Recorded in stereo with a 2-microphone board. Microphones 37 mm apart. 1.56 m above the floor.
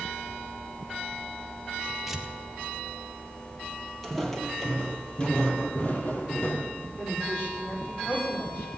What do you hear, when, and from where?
2.1 s tearing paper: 5° right (ahead or behind), 1.7 m
4.0 s footsteps: 5° left (ahead or behind), 2 m; by 6.9 s 60° left (ahead or behind), 3 m
7.0 s a woman speaking: 55° left (ahead or behind), 5.5 m